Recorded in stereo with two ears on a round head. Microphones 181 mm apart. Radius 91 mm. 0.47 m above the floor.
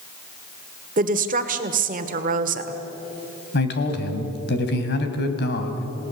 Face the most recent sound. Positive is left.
turn(degrees=55)  # may be behind; listen again after turning